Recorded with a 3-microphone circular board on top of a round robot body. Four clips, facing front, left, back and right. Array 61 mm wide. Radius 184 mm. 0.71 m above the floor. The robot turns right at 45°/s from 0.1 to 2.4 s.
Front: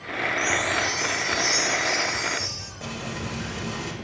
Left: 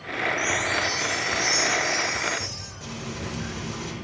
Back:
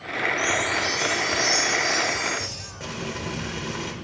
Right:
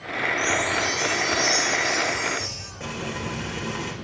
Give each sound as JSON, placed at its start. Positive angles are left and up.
{"t": 0.4, "sound": "a chime", "azimuth_deg": 150, "distance_m": 7.0}
{"t": 2.8, "sound": "frying", "azimuth_deg": -130, "distance_m": 4.0}